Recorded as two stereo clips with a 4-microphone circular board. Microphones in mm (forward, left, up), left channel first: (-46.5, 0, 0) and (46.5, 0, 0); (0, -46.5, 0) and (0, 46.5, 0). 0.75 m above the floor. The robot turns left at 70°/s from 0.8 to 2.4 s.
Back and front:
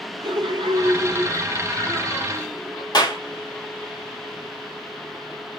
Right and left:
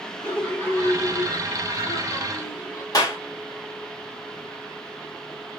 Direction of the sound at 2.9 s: 140° right.